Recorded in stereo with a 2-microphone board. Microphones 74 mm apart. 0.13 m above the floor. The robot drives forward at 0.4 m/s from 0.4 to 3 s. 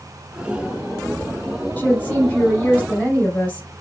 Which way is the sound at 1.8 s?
25° left (ahead or behind).